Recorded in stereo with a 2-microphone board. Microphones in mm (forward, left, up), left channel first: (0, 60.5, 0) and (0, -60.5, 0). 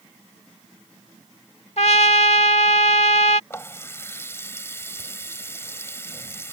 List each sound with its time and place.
1.8 s a trumpet: 65° left (ahead or behind)
3.5 s a running tap: 20° left (ahead or behind)